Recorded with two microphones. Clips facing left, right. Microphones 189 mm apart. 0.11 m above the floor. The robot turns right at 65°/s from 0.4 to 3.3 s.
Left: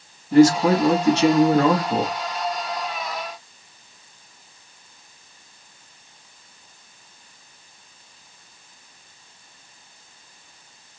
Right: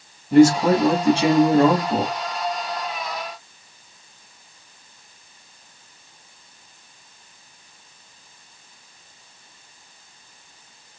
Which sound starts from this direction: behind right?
A man speaking, at 0.3 s.